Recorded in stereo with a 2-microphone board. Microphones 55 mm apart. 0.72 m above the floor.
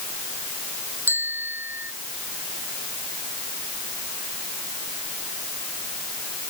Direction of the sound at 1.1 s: 40° right (ahead or behind).